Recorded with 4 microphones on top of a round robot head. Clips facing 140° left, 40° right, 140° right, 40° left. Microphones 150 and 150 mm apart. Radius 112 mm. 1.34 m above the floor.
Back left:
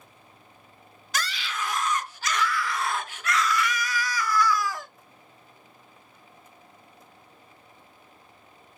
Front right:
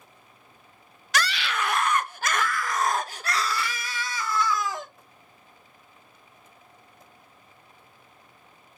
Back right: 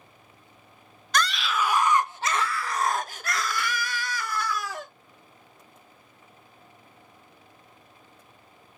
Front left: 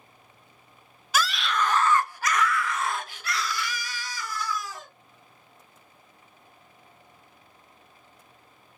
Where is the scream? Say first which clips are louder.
Front right 5 dB, even; 45° right, 1.0 m; by 4.9 s 110° right, 2 m.